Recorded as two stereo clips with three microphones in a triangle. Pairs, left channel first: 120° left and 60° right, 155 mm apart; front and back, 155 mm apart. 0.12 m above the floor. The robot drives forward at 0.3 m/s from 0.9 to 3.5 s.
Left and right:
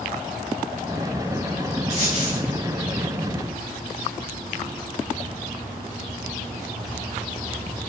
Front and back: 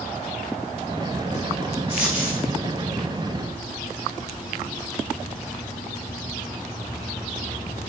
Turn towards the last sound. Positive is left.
turn(degrees=-105)